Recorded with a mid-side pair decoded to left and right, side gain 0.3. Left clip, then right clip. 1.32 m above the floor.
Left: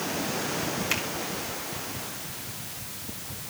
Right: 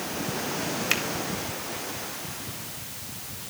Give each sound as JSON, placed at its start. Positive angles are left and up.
{"t": 0.9, "sound": "a finger snap", "azimuth_deg": -55, "distance_m": 3.0}